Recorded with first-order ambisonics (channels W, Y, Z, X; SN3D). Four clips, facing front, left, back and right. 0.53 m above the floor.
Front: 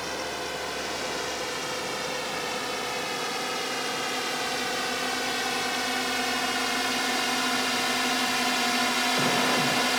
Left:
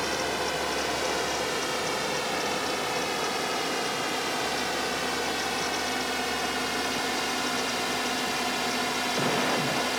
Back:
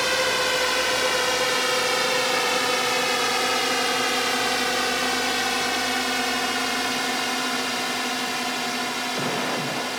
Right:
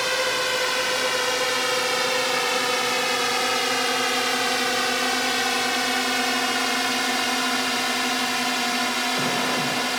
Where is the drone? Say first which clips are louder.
Right 5 dB, back 10 dB; 140° right; by 10.0 s 45° right.